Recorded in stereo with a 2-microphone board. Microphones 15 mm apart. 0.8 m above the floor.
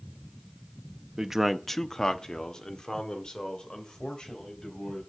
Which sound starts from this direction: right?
A man speaking, at 1.2 s.